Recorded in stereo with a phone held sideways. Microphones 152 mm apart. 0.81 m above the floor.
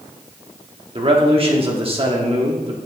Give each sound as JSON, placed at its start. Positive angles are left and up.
{"t": 0.9, "sound": "a man speaking", "side_deg": -40, "distance_m": 1.3}